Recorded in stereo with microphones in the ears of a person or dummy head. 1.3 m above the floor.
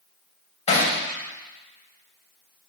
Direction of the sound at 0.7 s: 40° left (ahead or behind).